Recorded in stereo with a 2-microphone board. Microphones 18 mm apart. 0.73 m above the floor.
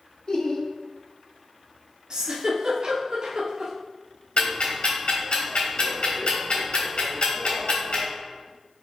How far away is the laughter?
About 1.7 m.